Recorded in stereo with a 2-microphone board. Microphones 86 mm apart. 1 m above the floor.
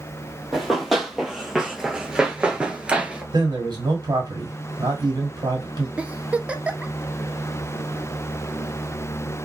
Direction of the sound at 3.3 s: 55° right (ahead or behind).